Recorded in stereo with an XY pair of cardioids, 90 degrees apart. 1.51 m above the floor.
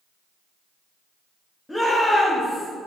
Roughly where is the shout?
Ahead.